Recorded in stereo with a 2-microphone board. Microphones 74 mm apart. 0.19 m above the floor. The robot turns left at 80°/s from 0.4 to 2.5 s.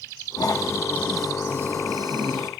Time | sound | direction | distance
0.4 | snoring | 65° left | 3 m